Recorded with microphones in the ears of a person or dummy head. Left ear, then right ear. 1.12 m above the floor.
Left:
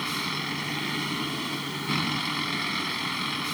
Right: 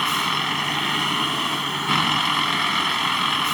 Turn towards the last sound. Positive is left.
turn(degrees=-45)  # may be behind; listen again after turning